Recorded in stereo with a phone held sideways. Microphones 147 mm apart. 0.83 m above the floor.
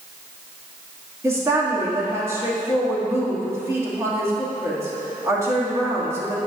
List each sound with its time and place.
1.2 s a woman speaking: 20° right (ahead or behind), 1.7 m